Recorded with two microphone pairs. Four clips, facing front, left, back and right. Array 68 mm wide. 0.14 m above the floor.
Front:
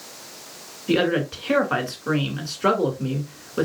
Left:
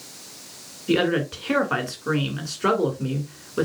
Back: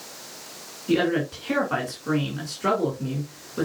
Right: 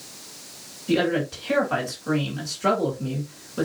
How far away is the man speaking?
About 1.7 m.